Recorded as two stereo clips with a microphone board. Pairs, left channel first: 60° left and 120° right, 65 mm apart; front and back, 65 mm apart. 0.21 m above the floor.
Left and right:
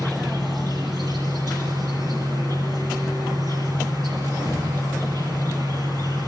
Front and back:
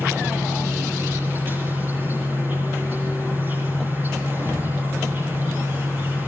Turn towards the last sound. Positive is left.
turn(degrees=-115)